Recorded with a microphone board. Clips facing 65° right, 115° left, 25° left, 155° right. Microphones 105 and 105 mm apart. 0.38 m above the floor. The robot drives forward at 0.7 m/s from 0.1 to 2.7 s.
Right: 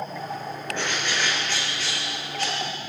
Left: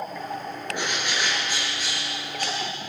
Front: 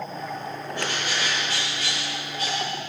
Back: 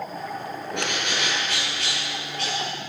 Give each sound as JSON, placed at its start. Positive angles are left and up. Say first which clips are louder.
{"t": 0.7, "sound": "a bird", "louder": "right 1 dB, back 1 dB", "azimuth_deg": -170, "distance_m": 5.0}